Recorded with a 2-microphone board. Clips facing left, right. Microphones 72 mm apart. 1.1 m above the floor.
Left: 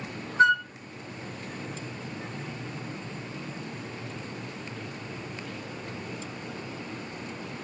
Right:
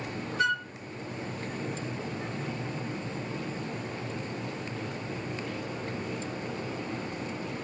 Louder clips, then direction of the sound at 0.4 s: Left 8 dB; 35° left (ahead or behind).